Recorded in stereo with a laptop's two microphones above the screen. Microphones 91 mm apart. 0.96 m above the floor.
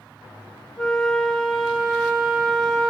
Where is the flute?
10° left (ahead or behind), 0.6 m.